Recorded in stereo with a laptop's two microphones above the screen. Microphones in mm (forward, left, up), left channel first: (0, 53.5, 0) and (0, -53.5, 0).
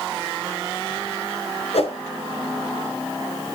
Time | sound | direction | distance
1.7 | a whoosh | 70° left (ahead or behind) | 4 m